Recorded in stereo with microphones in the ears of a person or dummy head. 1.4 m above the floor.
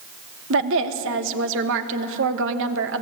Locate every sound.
0.5 s a woman speaking: 75° right (ahead or behind), 1.7 m